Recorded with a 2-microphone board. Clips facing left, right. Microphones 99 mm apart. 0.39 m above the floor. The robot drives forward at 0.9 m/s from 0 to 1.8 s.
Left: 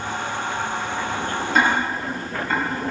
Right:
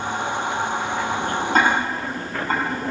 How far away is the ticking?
About 2.5 m.